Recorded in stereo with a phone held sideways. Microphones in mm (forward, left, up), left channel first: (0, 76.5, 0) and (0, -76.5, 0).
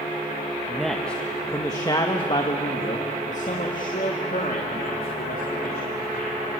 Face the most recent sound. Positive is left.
turn(degrees=75)  # may be behind; listen again after turning